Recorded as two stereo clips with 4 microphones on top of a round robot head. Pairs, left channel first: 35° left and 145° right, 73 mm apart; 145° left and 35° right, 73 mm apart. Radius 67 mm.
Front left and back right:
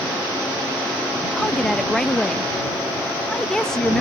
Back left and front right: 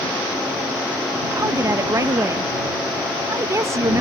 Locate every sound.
1.4 s a woman speaking: 40° right